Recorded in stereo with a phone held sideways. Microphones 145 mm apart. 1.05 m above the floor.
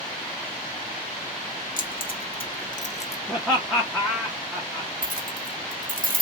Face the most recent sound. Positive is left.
turn(degrees=-65)  # may be behind; listen again after turning